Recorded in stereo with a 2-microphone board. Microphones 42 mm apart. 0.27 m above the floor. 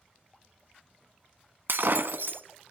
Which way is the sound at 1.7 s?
65° right (ahead or behind).